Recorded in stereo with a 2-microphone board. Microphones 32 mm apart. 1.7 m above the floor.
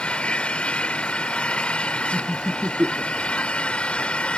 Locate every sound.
0.0 s an engine running: 40° left (ahead or behind)
2.1 s laughter: 50° right (ahead or behind)